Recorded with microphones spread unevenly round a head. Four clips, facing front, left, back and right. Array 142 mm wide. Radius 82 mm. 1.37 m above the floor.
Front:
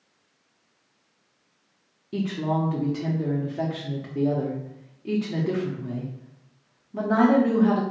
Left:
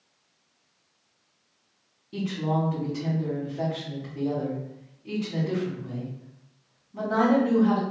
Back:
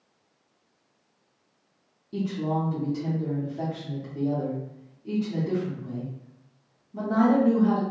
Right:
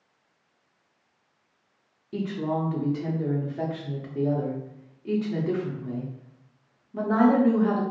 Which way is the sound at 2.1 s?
15° right.